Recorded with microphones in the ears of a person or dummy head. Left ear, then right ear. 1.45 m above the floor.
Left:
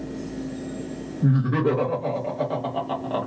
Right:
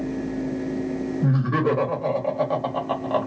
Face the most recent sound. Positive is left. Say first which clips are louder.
# left 1 dB
turn(degrees=-20)  # may be behind; listen again after turning